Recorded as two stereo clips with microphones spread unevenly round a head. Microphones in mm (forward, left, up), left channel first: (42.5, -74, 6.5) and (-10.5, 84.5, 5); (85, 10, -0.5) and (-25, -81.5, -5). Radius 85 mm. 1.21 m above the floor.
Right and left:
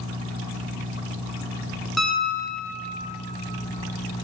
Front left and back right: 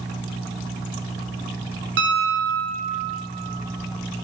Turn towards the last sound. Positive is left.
turn(degrees=-160)